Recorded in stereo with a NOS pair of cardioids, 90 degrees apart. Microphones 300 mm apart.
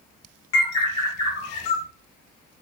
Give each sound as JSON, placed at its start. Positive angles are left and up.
{"t": 0.5, "sound": "a bird", "azimuth_deg": 40, "distance_m": 1.8}